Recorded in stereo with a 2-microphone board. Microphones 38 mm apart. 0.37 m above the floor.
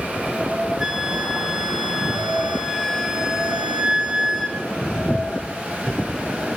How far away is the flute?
About 4 m.